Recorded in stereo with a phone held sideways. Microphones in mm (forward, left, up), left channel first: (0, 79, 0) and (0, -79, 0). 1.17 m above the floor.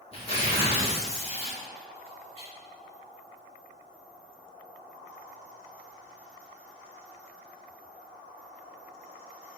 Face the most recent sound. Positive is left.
turn(degrees=40)  # may be behind; listen again after turning